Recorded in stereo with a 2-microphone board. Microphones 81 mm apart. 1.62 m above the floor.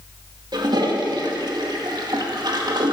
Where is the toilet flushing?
60° right (ahead or behind), 1.8 m.